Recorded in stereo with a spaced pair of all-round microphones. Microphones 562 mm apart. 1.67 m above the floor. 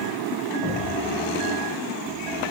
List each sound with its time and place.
0.6 s an explosion: 45° right (ahead or behind), 7 m